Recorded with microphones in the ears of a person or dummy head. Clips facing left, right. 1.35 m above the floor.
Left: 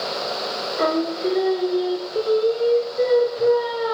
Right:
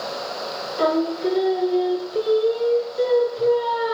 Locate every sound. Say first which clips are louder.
0.8 s singing: right 1 dB; 5° left (ahead or behind), 2.5 m